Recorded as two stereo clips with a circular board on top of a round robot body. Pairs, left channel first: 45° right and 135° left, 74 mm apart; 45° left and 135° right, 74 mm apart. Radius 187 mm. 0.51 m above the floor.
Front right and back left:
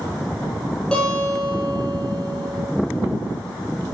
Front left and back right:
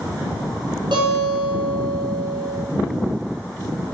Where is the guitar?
120° right, 4.5 m.